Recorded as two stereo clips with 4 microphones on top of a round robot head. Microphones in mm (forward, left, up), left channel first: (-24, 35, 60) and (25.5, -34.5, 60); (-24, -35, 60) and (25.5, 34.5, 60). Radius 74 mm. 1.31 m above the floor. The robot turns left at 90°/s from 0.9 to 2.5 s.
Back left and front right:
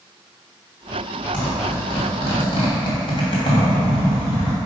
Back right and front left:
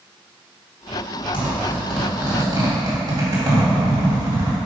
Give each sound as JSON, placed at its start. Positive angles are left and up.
{"t": 1.3, "sound": "a zipper", "azimuth_deg": -155, "distance_m": 2.0}